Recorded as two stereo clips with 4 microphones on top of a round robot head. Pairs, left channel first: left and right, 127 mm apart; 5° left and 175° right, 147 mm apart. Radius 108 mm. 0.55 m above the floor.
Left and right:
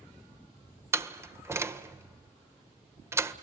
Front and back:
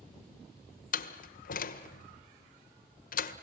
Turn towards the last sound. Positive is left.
turn(degrees=-20)